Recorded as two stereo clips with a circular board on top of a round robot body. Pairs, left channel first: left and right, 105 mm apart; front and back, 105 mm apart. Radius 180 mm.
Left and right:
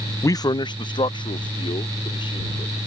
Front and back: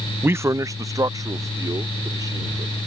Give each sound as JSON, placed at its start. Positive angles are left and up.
{"t": 0.2, "sound": "a man speaking", "azimuth_deg": 125}